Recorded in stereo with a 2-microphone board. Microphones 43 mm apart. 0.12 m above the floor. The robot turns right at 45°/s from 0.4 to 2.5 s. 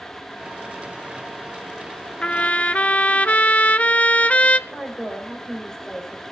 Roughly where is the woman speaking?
Centre.